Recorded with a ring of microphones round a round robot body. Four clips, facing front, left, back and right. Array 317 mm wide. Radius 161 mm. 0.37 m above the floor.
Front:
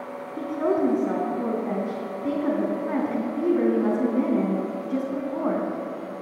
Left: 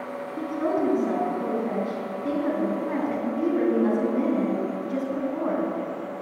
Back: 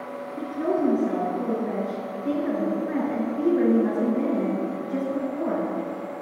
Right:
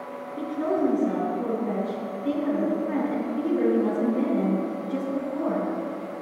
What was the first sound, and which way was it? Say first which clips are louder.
A woman speaking: right 1 dB, front 1 dB; 15° left.